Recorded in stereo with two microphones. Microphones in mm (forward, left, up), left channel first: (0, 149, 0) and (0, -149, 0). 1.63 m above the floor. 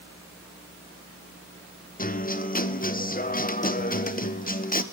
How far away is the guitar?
About 0.7 m.